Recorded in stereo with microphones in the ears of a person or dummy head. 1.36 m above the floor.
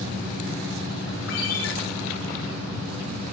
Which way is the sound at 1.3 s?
70° left (ahead or behind).